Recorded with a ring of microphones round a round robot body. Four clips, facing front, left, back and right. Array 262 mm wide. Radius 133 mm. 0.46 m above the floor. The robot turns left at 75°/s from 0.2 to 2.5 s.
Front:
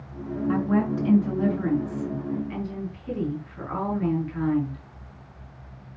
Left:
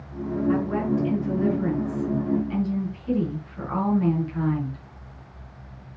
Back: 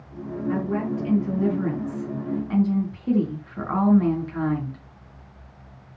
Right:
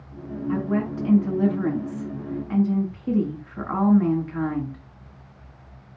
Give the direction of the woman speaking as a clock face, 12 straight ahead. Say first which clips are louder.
Even, front 2 dB; 12 o'clock.